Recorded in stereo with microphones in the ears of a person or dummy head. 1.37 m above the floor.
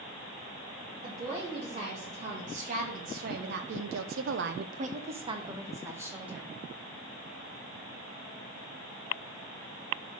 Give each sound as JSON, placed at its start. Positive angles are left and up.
{"t": 1.0, "sound": "a woman speaking", "side_deg": -35, "distance_m": 2.5}